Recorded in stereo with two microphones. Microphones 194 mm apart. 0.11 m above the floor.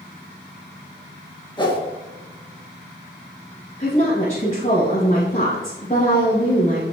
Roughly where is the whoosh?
Left.